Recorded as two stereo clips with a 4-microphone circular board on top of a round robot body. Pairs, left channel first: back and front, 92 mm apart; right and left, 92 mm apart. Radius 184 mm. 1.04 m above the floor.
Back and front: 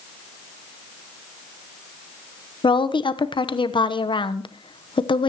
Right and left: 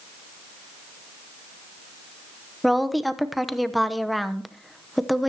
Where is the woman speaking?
Straight behind, 1.1 m.